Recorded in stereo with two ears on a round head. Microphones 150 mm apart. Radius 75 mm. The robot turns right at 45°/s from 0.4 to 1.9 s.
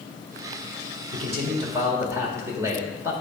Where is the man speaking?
60° right, 1.6 m; by 3.1 s 25° right, 1.6 m.